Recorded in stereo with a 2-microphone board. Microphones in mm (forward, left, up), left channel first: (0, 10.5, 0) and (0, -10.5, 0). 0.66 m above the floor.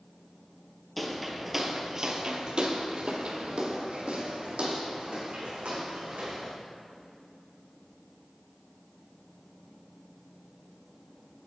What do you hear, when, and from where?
1.0 s footsteps: 5° left (ahead or behind), 0.8 m; by 6.5 s 70° right (ahead or behind), 2.5 m